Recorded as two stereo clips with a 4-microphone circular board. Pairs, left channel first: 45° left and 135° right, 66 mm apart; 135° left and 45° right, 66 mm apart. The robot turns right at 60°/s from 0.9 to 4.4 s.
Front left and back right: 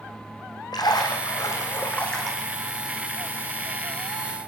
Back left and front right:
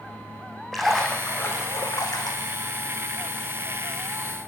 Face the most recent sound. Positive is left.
turn(degrees=-100)